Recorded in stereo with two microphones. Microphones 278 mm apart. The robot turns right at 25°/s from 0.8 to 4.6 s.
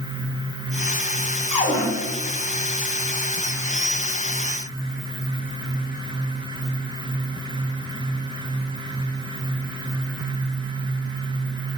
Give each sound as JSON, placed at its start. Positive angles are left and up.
{"t": 1.5, "sound": "a cupboard door", "side_deg": 20, "distance_m": 1.0}